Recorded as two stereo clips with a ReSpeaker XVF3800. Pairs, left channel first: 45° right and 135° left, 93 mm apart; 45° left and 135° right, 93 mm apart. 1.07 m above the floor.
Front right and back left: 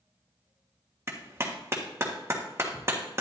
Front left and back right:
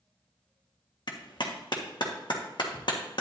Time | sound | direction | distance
1.1 | a clap | 75° left | 1.4 m